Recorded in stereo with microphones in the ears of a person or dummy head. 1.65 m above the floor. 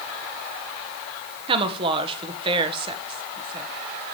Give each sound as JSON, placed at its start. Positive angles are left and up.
{"t": 1.5, "sound": "a woman speaking", "side_deg": -20, "distance_m": 1.6}